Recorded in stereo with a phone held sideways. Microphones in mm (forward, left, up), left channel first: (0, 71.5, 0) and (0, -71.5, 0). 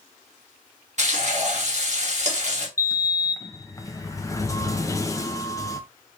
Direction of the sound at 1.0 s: 55° right (ahead or behind).